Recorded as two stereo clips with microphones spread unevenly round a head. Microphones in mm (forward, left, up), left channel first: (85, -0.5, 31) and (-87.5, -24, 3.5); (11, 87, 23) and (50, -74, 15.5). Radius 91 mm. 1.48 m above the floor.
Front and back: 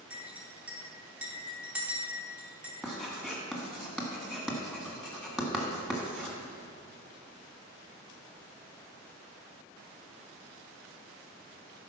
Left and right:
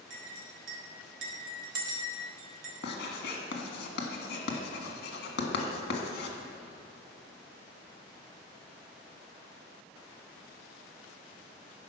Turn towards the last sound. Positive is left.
turn(degrees=95)